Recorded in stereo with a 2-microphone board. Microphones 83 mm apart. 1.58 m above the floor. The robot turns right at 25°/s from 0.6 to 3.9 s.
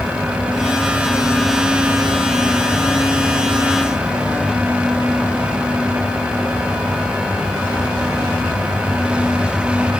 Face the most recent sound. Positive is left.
No sound to turn to.